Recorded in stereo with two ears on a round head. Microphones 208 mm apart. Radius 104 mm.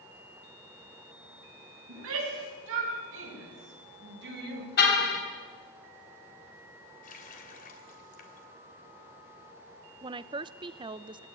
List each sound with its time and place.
1.9 s a shout: 65° right (ahead or behind), 7.5 m; by 4.7 s 45° right (ahead or behind), 5 m
4.8 s a car horn: 45° left (ahead or behind), 3.5 m
7.0 s a running tap: 40° left (ahead or behind), 3 m
10.0 s a woman speaking: 20° right (ahead or behind), 0.6 m